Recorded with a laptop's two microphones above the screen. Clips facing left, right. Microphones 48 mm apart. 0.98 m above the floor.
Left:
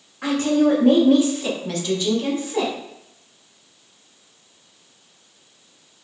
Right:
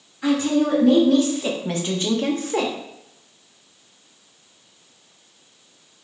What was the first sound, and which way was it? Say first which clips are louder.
A woman speaking: left 1 dB; 55° left (ahead or behind).